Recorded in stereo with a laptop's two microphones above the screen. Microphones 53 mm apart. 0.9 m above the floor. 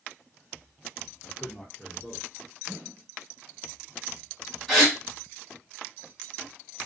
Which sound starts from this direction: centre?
A gasp, at 4.7 s.